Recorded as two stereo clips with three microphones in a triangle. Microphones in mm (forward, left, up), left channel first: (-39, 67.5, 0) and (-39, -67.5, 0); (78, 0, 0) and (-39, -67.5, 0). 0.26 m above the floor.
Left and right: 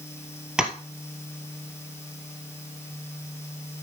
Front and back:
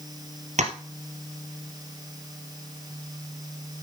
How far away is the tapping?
About 1.8 m.